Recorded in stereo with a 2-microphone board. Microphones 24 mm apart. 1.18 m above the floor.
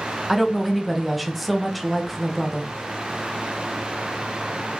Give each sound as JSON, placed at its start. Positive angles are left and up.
{"t": 0.3, "sound": "a woman speaking", "side_deg": -5, "distance_m": 0.5}